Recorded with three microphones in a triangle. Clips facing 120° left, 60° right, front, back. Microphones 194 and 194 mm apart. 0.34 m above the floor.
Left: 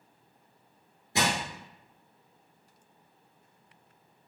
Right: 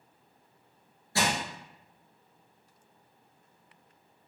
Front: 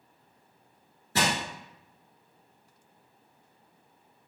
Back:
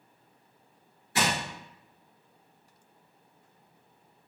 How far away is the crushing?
About 1.3 m.